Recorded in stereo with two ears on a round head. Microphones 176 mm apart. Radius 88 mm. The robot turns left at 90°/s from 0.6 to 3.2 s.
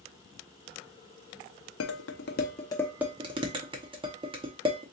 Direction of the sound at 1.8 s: 75° left (ahead or behind).